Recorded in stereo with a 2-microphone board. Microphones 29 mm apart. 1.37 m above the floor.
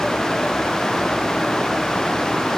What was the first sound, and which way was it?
Only background noise.